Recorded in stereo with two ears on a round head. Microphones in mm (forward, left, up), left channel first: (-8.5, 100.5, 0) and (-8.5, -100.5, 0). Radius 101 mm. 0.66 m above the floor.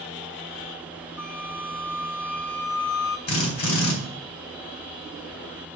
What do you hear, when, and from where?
1.2 s a flute: 80° left, 2 m
3.3 s a drill: 75° left (ahead or behind), 3.5 m